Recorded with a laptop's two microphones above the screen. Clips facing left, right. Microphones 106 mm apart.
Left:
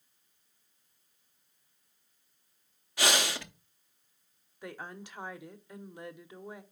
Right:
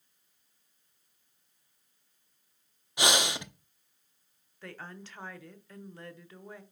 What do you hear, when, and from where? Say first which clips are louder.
3.0 s breathing: right 1 dB; 20° right (ahead or behind), 0.7 m
4.6 s a woman speaking: left 2 dB; 15° left (ahead or behind), 0.7 m